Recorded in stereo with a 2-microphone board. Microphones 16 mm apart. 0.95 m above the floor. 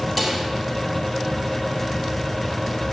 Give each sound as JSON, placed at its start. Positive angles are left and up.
{"t": 0.2, "sound": "a snare drum", "side_deg": 5, "distance_m": 2.0}